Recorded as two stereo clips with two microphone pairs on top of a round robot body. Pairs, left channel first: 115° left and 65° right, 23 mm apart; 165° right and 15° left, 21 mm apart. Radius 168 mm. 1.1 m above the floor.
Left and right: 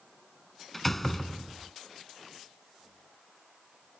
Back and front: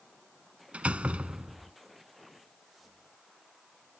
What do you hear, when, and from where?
0.7 s a door slam: 30° left